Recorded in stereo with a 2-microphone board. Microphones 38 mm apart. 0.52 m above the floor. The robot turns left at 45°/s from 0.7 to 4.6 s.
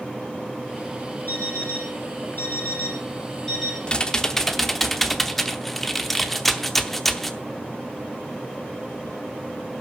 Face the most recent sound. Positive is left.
turn(degrees=0)